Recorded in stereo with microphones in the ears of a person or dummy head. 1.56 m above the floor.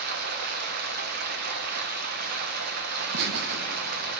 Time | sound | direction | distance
0.0 | running water | 55° right (ahead or behind) | 0.9 m
3.0 | laughter | 60° right (ahead or behind) | 1.0 m